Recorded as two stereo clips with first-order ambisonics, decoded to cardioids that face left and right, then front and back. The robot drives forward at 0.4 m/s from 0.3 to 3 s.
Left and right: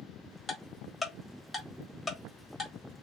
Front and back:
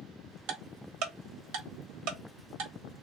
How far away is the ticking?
About 1.1 m.